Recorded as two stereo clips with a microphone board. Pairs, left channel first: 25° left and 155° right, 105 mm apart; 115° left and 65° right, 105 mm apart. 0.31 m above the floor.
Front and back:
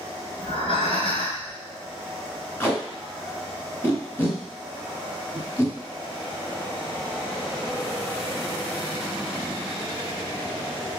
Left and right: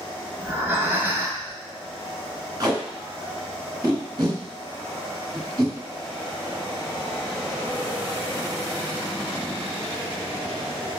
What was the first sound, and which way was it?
Breathing, straight ahead.